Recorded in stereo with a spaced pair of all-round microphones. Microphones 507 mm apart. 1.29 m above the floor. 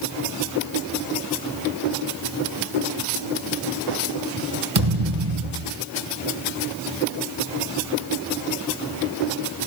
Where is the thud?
70° right (ahead or behind), 3.5 m.